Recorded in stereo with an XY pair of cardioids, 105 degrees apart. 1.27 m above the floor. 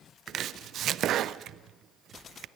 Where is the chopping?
70° right, 0.6 m.